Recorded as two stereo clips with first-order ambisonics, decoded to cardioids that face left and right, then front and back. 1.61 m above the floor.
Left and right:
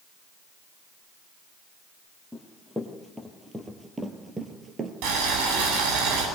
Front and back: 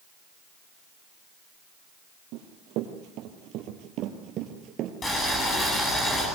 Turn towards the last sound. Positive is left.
turn(degrees=-70)